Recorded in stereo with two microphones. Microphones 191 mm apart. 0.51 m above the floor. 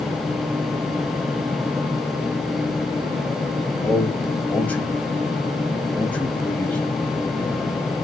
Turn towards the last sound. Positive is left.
turn(degrees=10)  # may be behind; listen again after turning